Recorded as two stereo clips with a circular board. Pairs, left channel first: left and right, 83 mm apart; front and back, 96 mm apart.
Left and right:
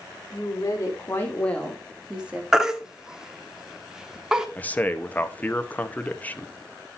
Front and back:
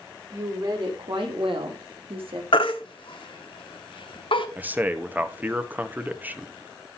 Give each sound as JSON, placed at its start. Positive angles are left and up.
{"t": 0.3, "sound": "a woman speaking", "azimuth_deg": 135, "distance_m": 3.5}
{"t": 2.5, "sound": "a baby crying", "azimuth_deg": -10, "distance_m": 1.1}
{"t": 4.6, "sound": "a man speaking", "azimuth_deg": 135, "distance_m": 0.8}